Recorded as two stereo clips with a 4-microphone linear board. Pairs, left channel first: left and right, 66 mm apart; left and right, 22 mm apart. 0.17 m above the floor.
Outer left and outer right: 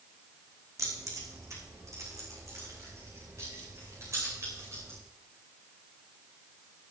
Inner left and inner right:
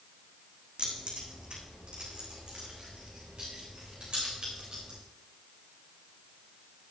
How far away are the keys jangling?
About 6 m.